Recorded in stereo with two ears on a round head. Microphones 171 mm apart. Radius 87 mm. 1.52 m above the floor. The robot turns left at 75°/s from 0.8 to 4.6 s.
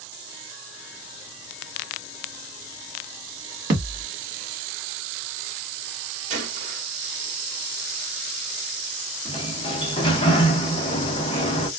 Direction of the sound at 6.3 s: 40° right (ahead or behind).